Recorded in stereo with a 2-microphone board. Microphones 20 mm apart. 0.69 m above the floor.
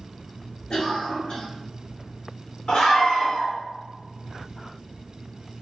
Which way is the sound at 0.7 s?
60° left (ahead or behind).